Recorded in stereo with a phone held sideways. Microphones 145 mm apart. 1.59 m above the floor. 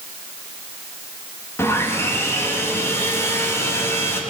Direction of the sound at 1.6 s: 15° left (ahead or behind).